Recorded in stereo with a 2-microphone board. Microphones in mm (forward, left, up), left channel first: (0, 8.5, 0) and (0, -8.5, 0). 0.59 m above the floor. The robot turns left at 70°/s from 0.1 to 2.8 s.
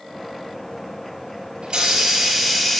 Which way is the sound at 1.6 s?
110° right.